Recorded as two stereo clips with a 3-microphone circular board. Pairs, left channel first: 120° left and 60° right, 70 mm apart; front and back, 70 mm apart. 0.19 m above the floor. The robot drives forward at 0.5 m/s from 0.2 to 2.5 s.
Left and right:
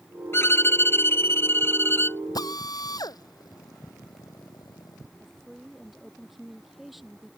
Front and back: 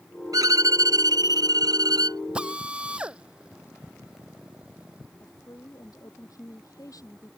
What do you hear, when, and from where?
0.3 s a violin: 165° left; by 2.2 s 175° left
2.4 s a drill: 105° left
5.2 s a woman speaking: 25° left